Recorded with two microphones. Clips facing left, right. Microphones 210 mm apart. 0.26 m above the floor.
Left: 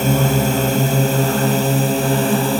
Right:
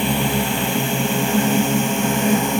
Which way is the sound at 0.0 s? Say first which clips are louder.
Left 4 dB; 45° left (ahead or behind).